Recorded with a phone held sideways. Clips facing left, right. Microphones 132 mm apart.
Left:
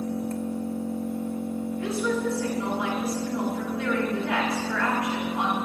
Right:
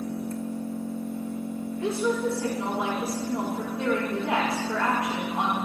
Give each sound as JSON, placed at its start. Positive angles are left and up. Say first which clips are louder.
{"t": 0.0, "sound": "an engine running", "louder": "left 2 dB", "side_deg": 60, "distance_m": 1.2}
{"t": 1.8, "sound": "a woman speaking", "louder": "right 2 dB", "side_deg": -30, "distance_m": 4.5}